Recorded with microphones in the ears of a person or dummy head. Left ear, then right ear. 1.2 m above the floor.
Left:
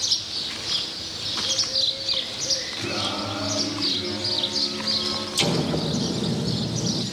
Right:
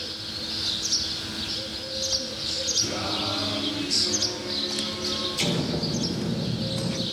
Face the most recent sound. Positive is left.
turn(degrees=35)  # may be behind; listen again after turning